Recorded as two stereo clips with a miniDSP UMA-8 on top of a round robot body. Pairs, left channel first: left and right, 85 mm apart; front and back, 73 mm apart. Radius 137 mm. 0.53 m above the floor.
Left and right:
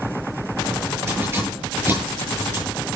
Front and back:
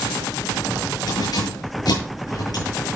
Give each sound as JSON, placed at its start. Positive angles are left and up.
{"t": 1.1, "sound": "keys jangling", "azimuth_deg": -25, "distance_m": 7.0}